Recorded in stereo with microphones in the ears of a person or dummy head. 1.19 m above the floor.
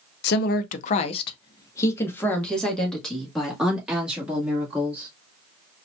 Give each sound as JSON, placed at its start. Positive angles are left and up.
{"t": 0.2, "sound": "a woman speaking", "side_deg": 65, "distance_m": 0.7}